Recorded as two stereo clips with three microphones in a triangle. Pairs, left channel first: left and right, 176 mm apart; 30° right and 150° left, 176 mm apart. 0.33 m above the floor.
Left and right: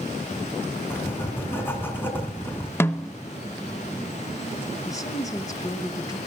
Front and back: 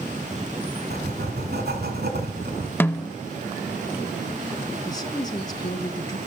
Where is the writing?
165° left, 2.5 m.